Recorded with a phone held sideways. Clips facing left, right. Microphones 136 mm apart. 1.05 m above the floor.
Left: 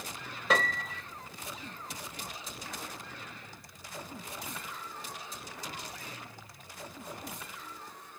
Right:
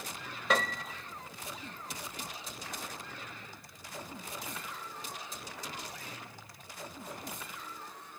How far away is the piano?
About 0.9 m.